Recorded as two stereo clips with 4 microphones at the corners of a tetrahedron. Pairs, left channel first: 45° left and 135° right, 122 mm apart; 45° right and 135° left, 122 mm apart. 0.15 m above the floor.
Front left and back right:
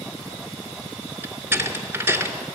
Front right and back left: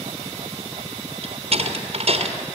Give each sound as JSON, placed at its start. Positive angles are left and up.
{"t": 1.2, "sound": "a door slam", "azimuth_deg": 155, "distance_m": 2.0}